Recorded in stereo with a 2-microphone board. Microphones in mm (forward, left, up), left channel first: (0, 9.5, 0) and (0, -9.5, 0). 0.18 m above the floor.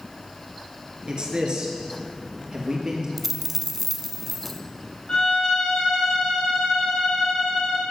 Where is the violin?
50° left (ahead or behind), 5.5 m.